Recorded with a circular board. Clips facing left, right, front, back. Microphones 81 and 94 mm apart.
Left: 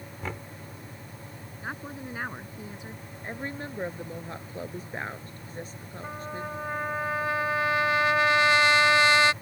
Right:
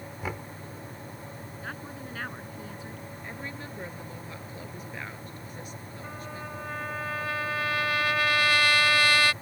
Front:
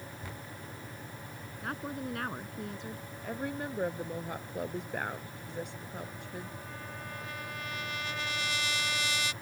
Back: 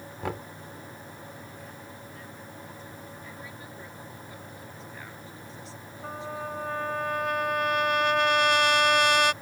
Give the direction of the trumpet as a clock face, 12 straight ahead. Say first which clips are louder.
Left 5 dB, back 8 dB; 7 o'clock.